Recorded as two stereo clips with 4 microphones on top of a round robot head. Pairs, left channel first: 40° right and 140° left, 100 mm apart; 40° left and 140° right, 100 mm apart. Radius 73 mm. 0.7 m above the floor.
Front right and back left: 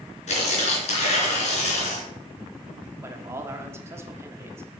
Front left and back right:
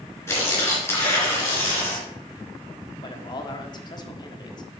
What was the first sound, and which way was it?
Tearing paper, 25° right.